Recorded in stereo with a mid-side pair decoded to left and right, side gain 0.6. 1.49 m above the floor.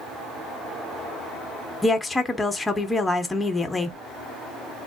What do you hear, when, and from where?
1.8 s a woman speaking: 15° left, 1.1 m